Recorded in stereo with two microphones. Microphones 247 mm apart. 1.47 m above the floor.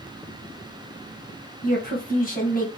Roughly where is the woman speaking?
Left.